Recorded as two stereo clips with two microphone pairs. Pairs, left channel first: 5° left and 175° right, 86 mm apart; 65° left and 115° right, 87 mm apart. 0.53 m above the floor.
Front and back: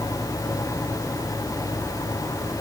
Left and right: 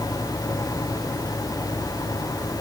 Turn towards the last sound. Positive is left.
No sound to turn to.